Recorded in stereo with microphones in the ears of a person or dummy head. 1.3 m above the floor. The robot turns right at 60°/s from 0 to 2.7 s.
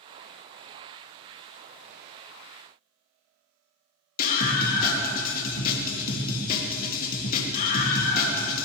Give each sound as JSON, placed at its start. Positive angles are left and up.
{"t": 4.2, "sound": "a scream", "side_deg": 50, "distance_m": 2.5}